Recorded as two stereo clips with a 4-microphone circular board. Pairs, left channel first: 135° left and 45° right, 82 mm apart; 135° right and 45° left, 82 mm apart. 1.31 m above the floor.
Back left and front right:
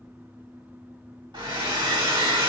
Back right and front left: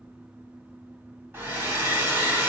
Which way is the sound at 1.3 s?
15° right.